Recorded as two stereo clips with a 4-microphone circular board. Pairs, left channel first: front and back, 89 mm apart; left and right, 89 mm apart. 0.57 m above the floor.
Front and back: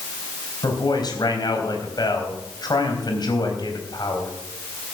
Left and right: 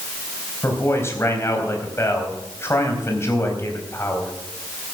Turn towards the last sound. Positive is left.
turn(degrees=35)